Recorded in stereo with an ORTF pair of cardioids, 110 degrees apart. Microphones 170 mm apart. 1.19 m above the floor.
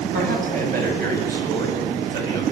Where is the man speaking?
45° right, 9 m; by 2.4 s 70° right, 9 m.